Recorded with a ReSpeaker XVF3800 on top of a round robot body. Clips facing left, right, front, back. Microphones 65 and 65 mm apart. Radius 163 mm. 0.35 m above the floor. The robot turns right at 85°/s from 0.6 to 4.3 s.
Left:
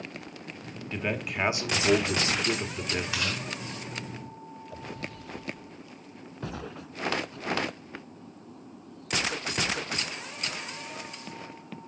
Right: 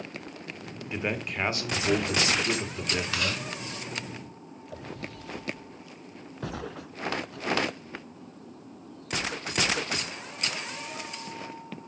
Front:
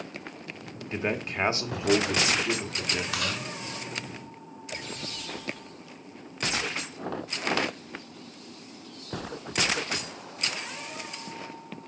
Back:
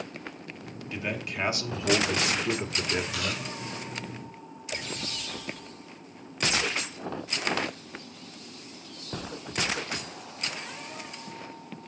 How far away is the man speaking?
About 1.4 m.